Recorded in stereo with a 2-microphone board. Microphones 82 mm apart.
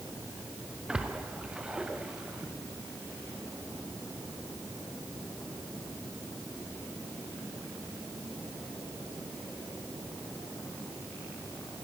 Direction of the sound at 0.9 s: 10° right (ahead or behind).